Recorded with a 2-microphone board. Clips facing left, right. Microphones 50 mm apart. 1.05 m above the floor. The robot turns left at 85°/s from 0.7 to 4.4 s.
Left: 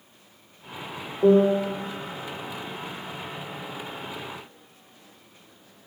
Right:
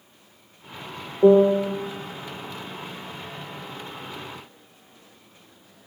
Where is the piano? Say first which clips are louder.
Right 3 dB; 45° right, 0.8 m; by 1.7 s 85° right, 0.8 m.